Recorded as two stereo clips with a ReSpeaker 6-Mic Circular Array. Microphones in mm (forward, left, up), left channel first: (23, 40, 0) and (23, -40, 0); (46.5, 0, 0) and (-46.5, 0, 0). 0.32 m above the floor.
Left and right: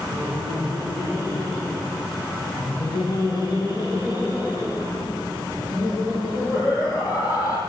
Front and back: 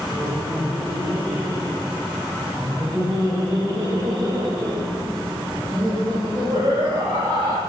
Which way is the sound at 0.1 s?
100° left.